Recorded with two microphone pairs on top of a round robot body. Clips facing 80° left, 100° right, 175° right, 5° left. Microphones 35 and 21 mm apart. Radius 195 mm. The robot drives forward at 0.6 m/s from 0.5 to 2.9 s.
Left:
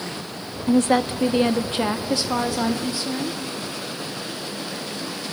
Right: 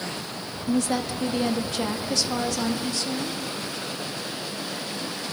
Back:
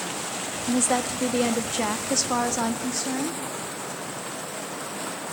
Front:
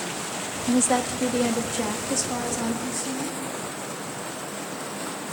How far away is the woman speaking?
About 1.2 m.